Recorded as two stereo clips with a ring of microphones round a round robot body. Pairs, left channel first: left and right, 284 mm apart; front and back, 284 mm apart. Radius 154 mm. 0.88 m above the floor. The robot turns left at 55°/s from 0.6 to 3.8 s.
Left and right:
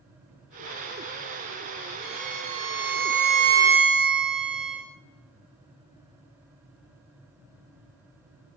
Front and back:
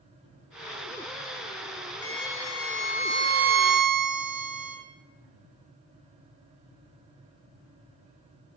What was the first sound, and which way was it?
A violin, 65° right.